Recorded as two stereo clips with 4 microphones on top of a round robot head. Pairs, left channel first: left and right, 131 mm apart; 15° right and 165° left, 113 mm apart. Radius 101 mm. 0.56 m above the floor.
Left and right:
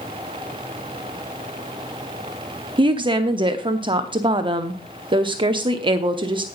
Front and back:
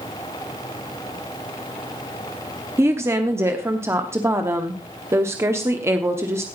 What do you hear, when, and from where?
2.8 s a woman speaking: 130° right, 1.0 m